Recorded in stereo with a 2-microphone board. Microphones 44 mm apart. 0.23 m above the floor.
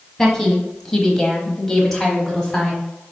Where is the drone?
No drone in this recording.